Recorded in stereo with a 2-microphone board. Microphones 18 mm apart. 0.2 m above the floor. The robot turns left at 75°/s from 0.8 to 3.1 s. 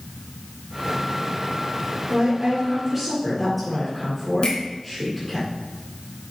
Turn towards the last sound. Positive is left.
turn(degrees=60)  # may be behind; listen again after turning